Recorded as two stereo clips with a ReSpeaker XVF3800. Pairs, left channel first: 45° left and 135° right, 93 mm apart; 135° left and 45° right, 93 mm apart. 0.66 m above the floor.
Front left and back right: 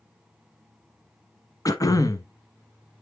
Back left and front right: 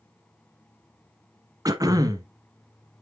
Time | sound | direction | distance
1.6 | throat clearing | straight ahead | 1.0 m